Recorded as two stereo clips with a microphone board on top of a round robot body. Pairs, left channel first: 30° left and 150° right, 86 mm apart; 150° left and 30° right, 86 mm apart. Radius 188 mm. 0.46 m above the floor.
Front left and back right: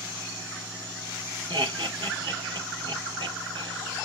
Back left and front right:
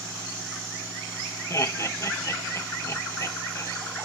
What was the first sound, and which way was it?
Laughter, 155° right.